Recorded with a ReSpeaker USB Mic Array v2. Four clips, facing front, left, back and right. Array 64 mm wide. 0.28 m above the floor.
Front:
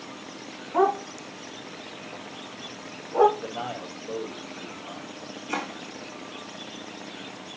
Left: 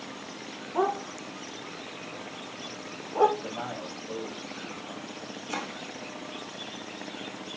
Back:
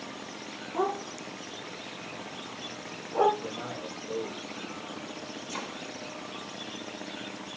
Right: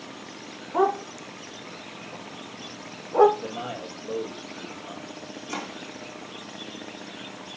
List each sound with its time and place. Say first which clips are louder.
0.7 s a dog barking: right 4 dB, front 8 dB; 50° right, 5.5 m; by 3.3 s 75° right, 4.5 m
3.4 s a man speaking: right 2 dB, front 3 dB; 50° right, 7.5 m
5.5 s chopping: right 1 dB, front 8 dB; 20° right, 5.5 m